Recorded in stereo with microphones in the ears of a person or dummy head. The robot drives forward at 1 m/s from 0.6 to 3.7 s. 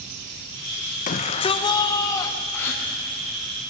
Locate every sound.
1.1 s a shout: 40° left (ahead or behind), 0.8 m; by 2.4 s 15° left (ahead or behind), 2.0 m
2.5 s a gasp: 10° left (ahead or behind), 3.5 m